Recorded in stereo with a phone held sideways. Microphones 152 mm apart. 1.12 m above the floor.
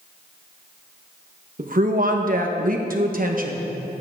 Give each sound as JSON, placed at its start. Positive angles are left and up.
{"t": 1.6, "sound": "a woman speaking", "side_deg": -60, "distance_m": 1.3}